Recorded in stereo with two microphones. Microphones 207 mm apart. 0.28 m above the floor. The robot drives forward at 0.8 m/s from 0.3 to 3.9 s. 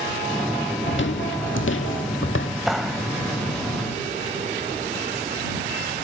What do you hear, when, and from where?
0.9 s footsteps: 65° left (ahead or behind), 0.8 m; by 2.5 s 75° left (ahead or behind), 0.9 m
2.7 s a clap: centre (ahead or behind), 0.8 m